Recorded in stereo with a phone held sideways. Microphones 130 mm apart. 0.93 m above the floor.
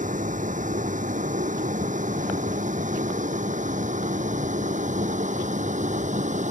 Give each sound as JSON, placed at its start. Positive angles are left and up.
{"t": 0.0, "sound": "a vehicle", "side_deg": -75}